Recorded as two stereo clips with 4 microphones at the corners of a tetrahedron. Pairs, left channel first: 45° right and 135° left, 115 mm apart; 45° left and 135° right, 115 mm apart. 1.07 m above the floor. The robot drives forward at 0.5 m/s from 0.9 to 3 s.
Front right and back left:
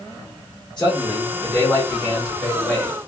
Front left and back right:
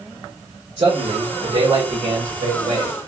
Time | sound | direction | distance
0.8 | a man speaking | 130° right | 1.6 m